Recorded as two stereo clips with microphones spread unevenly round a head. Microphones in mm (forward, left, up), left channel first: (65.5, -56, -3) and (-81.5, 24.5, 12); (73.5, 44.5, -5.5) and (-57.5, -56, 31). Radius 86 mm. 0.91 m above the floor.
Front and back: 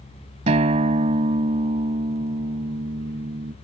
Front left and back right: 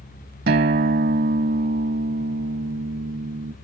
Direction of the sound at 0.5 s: 165° right.